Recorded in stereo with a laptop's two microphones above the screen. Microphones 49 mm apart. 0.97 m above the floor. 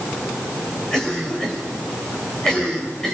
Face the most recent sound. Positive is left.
turn(degrees=10)  # may be behind; listen again after turning